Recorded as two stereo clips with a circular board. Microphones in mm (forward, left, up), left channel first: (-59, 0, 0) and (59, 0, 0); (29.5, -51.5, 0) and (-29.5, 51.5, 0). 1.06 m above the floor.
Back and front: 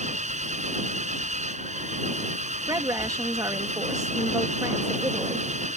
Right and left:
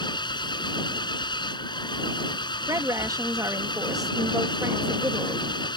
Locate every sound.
0.0 s an engine running: 10° right
2.7 s a woman speaking: 60° left